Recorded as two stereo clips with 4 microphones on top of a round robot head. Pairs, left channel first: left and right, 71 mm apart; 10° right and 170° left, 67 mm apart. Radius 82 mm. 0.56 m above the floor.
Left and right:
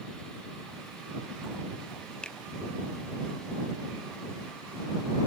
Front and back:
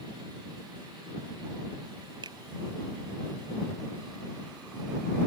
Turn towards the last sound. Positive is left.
turn(degrees=170)